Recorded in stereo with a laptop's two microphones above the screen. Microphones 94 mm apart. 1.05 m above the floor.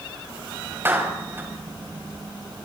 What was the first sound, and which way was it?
A clap, 25° right (ahead or behind).